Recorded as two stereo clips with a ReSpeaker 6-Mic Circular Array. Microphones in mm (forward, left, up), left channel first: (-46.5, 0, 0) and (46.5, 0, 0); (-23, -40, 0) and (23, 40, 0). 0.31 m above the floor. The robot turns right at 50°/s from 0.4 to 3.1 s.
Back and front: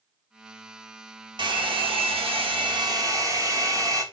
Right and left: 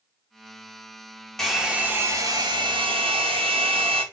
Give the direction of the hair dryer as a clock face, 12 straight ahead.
1 o'clock.